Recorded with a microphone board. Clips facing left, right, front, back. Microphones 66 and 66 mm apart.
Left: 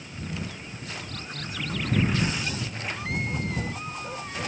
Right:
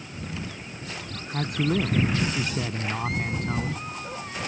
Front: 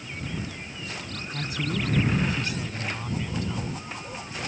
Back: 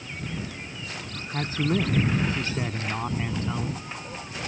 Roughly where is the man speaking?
Behind right.